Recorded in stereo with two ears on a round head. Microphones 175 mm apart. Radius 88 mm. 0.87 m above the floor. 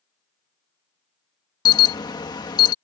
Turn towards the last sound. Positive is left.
turn(degrees=20)  # may be behind; listen again after turning